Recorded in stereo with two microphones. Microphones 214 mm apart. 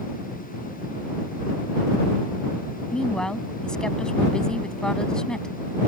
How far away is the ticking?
I don't hear ticking.